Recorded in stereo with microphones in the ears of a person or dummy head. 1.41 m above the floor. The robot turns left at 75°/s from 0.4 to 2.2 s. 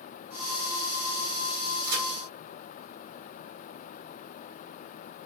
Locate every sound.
1.8 s a crack: 65° right (ahead or behind), 2.5 m; by 2.0 s 50° right (ahead or behind), 2.5 m